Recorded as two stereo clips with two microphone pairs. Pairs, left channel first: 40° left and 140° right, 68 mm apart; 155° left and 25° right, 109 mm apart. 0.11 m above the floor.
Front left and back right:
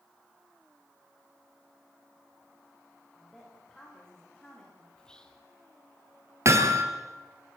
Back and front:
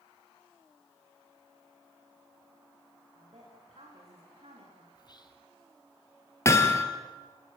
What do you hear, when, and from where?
3.1 s a woman speaking: 40° right, 9 m
5.0 s whispering: 115° left, 3 m
6.5 s hammering: 150° right, 2.0 m